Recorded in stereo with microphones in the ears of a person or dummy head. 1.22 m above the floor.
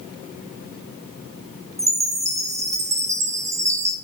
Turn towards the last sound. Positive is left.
turn(degrees=-15)  # may be behind; listen again after turning